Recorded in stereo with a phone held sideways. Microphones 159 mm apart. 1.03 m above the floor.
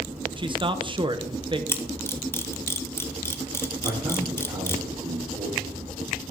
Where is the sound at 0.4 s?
30° right (ahead or behind), 0.8 m.